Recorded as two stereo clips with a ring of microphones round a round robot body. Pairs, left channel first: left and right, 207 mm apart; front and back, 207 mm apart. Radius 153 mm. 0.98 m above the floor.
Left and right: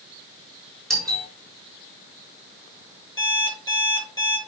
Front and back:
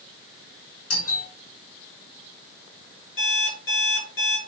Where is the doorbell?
Straight ahead, 5.5 m.